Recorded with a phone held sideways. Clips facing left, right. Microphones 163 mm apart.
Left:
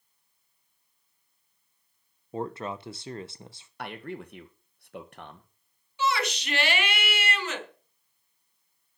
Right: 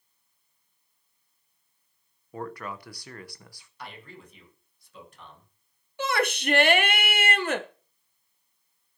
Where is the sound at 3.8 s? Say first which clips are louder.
Left 7 dB; 60° left (ahead or behind), 1.6 m.